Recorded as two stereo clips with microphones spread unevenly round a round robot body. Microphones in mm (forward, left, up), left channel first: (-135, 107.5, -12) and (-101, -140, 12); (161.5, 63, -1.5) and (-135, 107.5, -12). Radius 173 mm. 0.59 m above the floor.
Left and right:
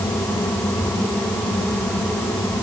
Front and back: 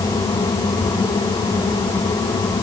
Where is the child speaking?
I don't hear a child speaking.